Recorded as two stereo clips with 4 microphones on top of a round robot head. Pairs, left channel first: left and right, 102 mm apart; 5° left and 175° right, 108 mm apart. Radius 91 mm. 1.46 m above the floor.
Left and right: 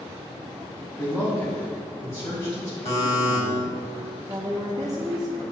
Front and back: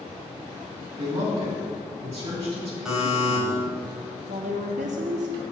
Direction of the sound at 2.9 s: 100° left.